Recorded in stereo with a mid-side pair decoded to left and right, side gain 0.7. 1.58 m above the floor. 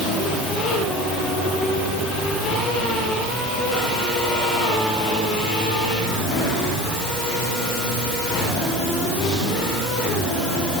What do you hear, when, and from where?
Only background noise.